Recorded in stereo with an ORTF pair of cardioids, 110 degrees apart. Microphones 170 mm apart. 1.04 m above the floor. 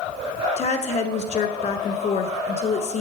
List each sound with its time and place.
0.6 s a woman speaking: 40° left, 1.2 m